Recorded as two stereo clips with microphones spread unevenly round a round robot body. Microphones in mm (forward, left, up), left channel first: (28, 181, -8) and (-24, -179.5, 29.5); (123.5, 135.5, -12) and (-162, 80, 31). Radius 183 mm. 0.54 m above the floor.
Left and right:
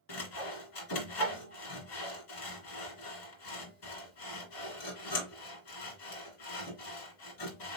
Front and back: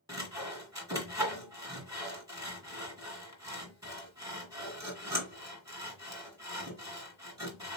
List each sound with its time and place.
0.1 s sawing: 110° left, 2.5 m